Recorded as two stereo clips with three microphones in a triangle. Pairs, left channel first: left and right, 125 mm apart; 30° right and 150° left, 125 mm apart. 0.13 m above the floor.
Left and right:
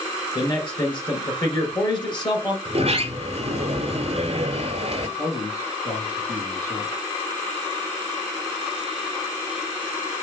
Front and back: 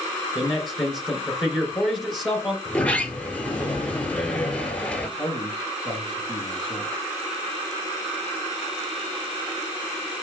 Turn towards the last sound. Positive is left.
turn(degrees=140)